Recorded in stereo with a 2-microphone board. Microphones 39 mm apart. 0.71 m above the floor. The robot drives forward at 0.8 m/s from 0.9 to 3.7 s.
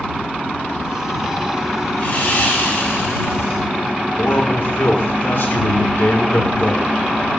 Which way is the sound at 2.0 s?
50° left (ahead or behind).